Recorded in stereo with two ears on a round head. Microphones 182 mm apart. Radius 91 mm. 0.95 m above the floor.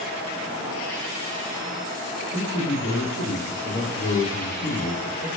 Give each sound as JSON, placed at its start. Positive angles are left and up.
{"t": 2.3, "sound": "a man speaking", "side_deg": 70, "distance_m": 1.5}